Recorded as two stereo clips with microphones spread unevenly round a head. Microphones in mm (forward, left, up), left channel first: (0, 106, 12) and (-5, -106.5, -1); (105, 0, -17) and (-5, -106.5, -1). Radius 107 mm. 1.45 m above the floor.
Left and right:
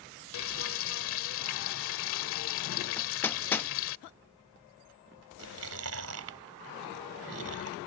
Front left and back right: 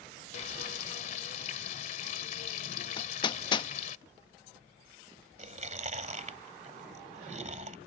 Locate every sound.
0.3 s frying: 95° left
3.0 s hammering: 30° left
5.4 s chewing: 105° right